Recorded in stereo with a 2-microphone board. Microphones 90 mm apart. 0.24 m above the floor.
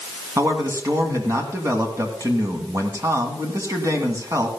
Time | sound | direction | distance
0.4 | a man speaking | 35° right (ahead or behind) | 2 m